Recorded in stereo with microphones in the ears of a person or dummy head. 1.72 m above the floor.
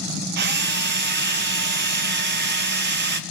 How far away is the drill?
About 0.6 m.